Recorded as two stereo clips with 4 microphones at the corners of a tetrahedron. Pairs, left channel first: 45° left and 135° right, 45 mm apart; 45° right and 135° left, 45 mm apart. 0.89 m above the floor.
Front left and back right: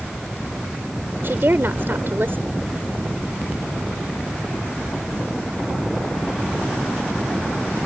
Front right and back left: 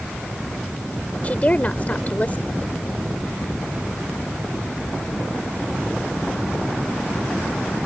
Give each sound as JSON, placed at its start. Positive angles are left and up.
{"t": 1.2, "sound": "a woman speaking", "azimuth_deg": -100}